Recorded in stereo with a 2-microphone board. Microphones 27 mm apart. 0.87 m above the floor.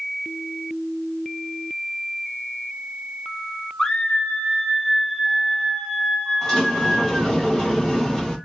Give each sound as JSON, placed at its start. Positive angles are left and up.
{"t": 3.8, "sound": "a scream", "side_deg": 30, "distance_m": 0.9}
{"t": 6.4, "sound": "a sliding door", "side_deg": 25, "distance_m": 1.3}